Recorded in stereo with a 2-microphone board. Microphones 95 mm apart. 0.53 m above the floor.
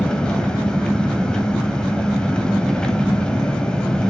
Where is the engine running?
10° left (ahead or behind), 2.5 m.